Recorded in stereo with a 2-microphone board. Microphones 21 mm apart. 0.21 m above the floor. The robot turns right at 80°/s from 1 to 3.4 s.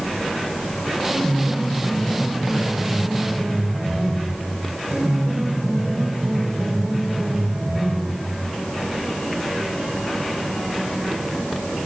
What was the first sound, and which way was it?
A piano, 40° left.